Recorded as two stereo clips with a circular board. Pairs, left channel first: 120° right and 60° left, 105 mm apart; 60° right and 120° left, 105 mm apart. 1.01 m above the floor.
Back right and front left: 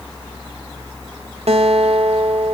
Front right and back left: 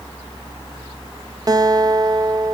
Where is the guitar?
70° left, 0.8 m.